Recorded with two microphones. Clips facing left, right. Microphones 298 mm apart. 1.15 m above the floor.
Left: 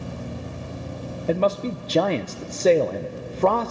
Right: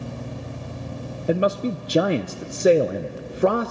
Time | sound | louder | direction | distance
1.3 | a man speaking | right 1 dB | 15° right (ahead or behind) | 0.5 m